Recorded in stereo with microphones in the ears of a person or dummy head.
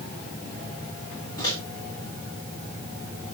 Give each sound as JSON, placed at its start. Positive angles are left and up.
{"t": 1.4, "sound": "a microwave", "side_deg": 20, "distance_m": 7.0}